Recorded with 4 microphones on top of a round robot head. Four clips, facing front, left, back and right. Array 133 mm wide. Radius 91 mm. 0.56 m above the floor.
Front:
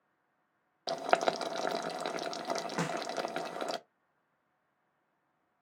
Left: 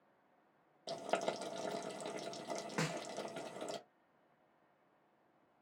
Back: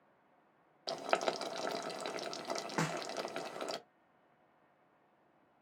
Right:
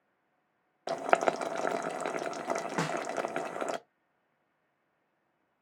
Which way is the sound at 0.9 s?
70° right.